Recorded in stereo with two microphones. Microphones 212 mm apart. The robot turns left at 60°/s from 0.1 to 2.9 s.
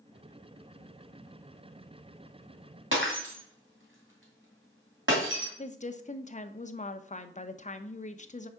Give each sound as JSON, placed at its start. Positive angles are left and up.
{"t": 2.9, "sound": "breaking glass", "side_deg": -65, "distance_m": 2.0}
{"t": 5.6, "sound": "a woman speaking", "side_deg": 35, "distance_m": 0.5}